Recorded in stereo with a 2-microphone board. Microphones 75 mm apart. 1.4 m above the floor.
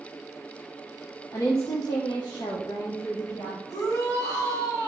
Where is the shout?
60° left (ahead or behind), 3.5 m.